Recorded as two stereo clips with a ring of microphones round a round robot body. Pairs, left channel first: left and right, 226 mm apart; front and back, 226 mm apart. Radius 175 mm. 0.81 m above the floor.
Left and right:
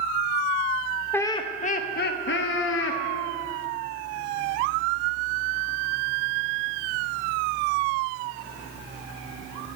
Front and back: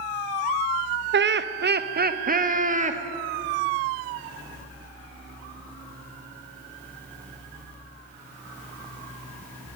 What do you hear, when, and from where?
1.1 s laughter: 170° left, 0.7 m; by 3.0 s 120° left, 1.5 m